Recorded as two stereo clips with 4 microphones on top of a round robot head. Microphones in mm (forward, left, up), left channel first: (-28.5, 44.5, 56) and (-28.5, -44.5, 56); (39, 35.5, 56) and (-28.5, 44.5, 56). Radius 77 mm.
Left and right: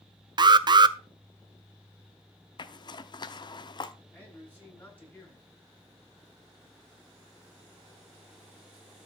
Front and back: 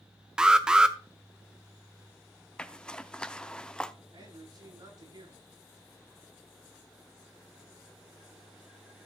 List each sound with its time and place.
0.4 s an alarm: 110° right, 0.8 m
2.6 s a zipper: 70° left, 0.9 m
4.1 s a man speaking: 165° left, 9 m